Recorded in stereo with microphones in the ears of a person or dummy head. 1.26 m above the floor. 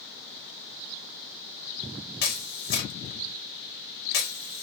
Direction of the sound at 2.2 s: 45° left (ahead or behind).